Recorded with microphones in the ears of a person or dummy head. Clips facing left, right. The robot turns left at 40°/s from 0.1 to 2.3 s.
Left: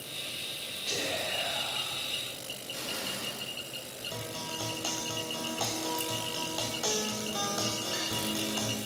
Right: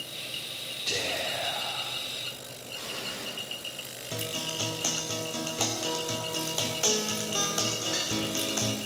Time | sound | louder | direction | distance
0.9 | whispering | right 1 dB | 30° right | 3 m
2.7 | an explosion | left 1 dB | 75° left (ahead or behind) | 3 m
4.1 | a guitar | right 4 dB | 35° right (ahead or behind) | 0.9 m